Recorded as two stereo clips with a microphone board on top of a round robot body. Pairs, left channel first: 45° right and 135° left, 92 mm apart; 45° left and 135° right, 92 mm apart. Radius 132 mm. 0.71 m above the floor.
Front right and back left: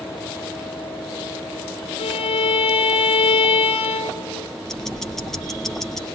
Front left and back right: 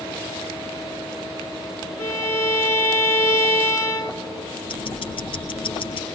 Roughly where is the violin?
Ahead.